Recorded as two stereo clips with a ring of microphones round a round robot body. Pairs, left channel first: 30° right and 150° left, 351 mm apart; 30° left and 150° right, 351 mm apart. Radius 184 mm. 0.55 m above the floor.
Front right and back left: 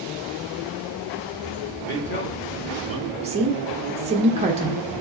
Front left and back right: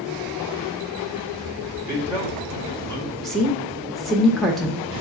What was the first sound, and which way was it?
A man speaking, 10° right.